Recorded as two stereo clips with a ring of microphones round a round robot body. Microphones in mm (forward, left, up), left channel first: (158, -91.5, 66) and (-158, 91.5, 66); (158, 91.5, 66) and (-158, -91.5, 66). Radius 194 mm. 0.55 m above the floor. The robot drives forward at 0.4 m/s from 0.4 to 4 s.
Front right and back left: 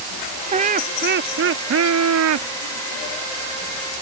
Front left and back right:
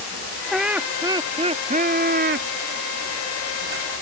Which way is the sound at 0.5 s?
120° left.